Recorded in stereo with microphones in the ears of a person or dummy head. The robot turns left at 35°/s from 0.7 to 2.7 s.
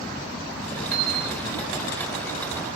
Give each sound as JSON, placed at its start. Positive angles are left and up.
{"t": 0.9, "sound": "a bell", "side_deg": -30, "distance_m": 9.5}